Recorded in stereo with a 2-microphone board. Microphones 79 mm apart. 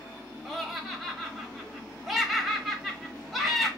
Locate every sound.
0.5 s laughter: centre (ahead or behind), 1.0 m